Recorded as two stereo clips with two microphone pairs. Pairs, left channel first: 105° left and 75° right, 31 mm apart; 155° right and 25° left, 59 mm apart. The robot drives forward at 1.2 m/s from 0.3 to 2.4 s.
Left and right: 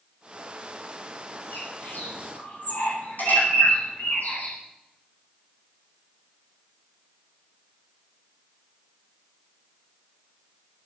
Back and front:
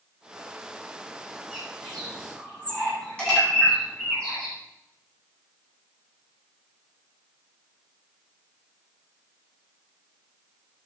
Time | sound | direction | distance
1.5 | a bird | 125° left | 8.5 m